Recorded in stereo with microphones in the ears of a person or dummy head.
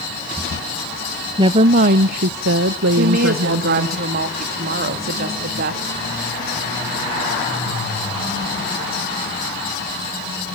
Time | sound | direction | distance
1.4 | a woman speaking | 30° right (ahead or behind) | 0.7 m
3.0 | a woman speaking | 50° right (ahead or behind) | 3 m